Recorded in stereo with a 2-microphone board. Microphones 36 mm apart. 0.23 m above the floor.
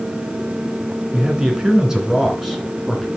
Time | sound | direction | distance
1.1 | a man speaking | 30° right (ahead or behind) | 2.5 m